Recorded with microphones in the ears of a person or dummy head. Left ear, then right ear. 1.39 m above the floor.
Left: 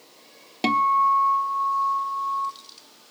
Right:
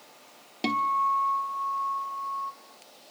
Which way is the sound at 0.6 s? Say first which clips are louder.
Left 6 dB; 20° left (ahead or behind).